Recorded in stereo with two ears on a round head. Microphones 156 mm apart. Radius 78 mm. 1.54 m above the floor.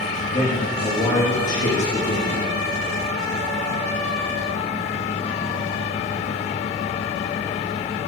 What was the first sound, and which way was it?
A man speaking, 40° left (ahead or behind).